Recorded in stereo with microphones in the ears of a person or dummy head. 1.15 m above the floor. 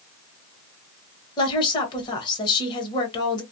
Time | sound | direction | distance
1.4 | a woman speaking | 25° left (ahead or behind) | 1.2 m